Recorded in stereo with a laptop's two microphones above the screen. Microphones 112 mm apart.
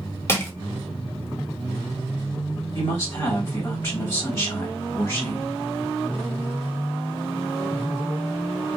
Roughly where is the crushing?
Left.